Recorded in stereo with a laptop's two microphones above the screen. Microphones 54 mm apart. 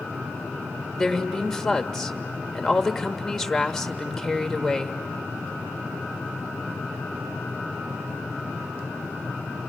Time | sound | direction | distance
1.0 | a woman speaking | 5° left (ahead or behind) | 1.2 m